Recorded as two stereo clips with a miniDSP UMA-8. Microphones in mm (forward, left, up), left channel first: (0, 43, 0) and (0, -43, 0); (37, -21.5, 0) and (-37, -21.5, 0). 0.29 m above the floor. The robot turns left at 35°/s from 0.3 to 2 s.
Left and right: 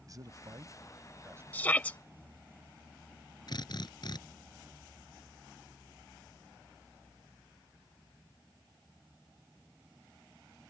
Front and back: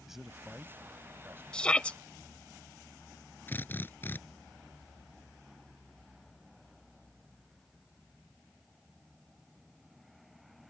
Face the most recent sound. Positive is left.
turn(degrees=60)